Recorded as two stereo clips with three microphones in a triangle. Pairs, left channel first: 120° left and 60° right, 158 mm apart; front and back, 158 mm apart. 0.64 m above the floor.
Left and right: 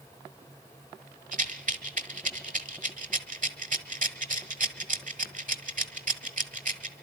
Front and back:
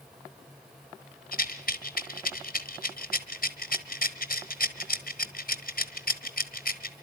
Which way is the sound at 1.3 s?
25° right.